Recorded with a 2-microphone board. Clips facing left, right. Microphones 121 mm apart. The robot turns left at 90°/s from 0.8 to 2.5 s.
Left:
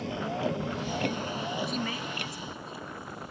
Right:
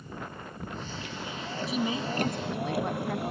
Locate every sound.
0.0 s a vehicle: 85° left; by 3.3 s 70° right (ahead or behind)
1.7 s a woman speaking: straight ahead; by 3.3 s 75° right